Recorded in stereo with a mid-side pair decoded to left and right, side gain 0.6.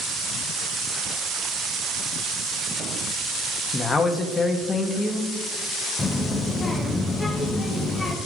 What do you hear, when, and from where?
3.7 s a man speaking: 20° left, 0.9 m
6.0 s a child speaking: 20° left, 0.9 m